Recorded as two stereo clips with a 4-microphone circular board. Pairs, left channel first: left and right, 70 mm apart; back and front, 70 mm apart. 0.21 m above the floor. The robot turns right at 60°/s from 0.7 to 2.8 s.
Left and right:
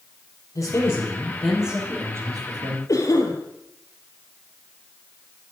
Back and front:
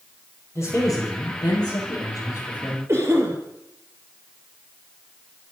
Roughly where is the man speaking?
Behind left.